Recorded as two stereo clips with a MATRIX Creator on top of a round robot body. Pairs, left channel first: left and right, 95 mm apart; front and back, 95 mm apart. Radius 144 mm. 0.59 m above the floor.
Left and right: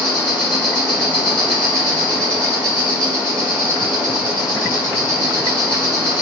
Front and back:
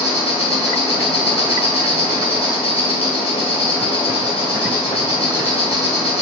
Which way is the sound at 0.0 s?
10° left.